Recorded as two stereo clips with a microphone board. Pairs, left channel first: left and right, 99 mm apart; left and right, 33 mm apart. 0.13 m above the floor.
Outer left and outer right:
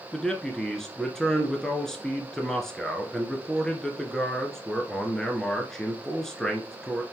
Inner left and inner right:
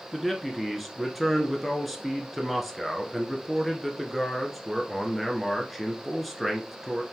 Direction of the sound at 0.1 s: 5° left (ahead or behind).